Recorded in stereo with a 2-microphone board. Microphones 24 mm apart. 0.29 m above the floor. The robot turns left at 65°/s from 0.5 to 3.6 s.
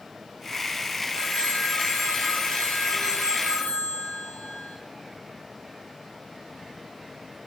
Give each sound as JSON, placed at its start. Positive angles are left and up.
{"t": 1.1, "sound": "a phone ringing", "azimuth_deg": 175, "distance_m": 3.0}